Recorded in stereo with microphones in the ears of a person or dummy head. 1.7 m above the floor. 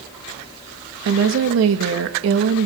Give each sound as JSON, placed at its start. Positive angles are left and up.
{"t": 1.1, "sound": "a woman speaking", "side_deg": -80, "distance_m": 2.5}